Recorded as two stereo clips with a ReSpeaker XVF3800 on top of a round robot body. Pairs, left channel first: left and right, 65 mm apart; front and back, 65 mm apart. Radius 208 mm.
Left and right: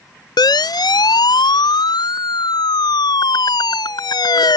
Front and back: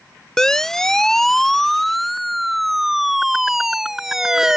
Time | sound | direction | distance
0.4 | a siren | 85° left | ?